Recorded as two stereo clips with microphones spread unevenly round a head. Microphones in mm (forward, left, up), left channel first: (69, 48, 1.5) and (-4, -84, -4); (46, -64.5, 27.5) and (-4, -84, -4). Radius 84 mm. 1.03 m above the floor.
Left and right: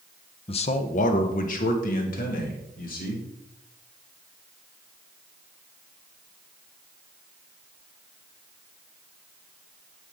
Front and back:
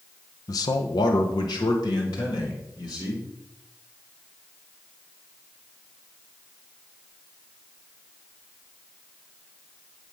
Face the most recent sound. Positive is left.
turn(degrees=35)